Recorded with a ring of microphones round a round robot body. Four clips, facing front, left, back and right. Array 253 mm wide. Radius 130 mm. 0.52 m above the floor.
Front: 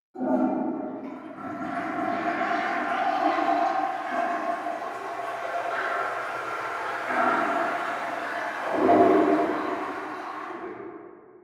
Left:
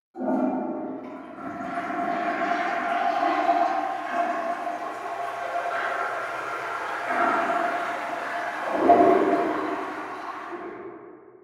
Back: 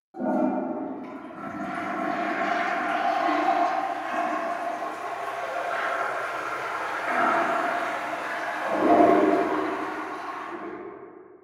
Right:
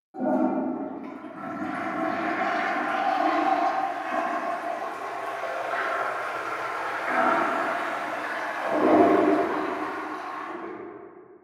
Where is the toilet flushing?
130° right, 1.0 m.